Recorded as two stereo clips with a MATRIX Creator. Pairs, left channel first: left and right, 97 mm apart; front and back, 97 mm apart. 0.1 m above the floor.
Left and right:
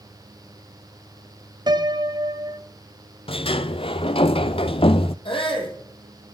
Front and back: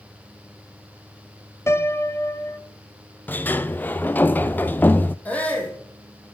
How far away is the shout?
About 4 m.